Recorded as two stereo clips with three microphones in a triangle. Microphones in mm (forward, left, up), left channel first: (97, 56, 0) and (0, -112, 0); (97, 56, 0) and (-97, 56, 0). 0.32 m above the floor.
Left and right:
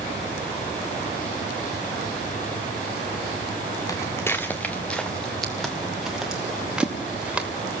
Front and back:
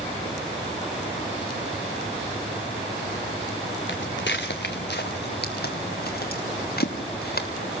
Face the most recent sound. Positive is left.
turn(degrees=-35)